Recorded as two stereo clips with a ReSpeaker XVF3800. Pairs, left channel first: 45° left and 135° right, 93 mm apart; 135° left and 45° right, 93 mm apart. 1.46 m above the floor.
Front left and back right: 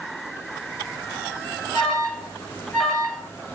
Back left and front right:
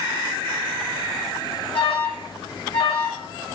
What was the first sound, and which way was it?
An alarm, 130° left.